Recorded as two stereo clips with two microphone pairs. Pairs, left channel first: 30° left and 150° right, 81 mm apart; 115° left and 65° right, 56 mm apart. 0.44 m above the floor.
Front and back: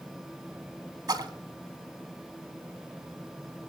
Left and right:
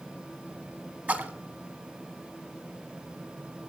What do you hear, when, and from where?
1.1 s a splash: 120° right, 0.9 m